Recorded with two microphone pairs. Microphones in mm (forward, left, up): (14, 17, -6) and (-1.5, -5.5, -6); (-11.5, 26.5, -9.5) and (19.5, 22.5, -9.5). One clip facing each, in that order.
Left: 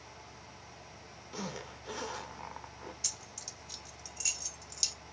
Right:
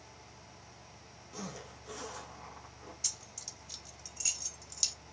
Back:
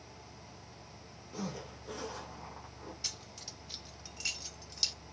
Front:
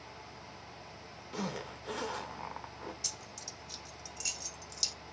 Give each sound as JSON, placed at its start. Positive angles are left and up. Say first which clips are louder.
{"t": 1.3, "sound": "a zipper", "louder": "left 3 dB, front 3 dB", "azimuth_deg": 5, "distance_m": 0.9}
{"t": 3.0, "sound": "keys jangling", "louder": "right 2 dB, even", "azimuth_deg": 135, "distance_m": 0.8}